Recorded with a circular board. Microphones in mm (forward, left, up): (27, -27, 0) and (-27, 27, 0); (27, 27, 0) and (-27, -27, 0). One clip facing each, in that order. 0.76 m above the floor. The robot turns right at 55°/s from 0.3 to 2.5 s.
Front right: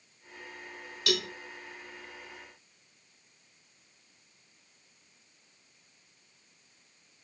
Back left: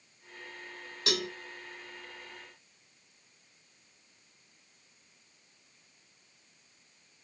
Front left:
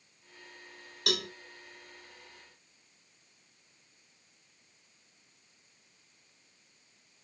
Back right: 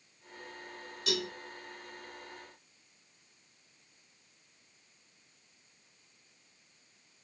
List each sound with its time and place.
1.1 s a cowbell: 75° left, 3 m; by 1.3 s 85° left, 3 m